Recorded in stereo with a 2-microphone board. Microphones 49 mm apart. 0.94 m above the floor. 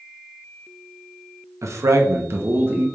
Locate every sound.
1.6 s a man speaking: 75° right (ahead or behind), 0.7 m; by 2.9 s 40° right (ahead or behind), 0.7 m